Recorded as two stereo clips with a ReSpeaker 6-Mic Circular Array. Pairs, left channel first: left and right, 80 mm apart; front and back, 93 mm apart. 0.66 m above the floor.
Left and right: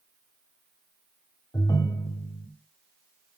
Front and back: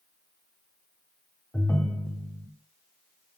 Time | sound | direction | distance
1.5 | a ringtone | 65° left | 1.0 m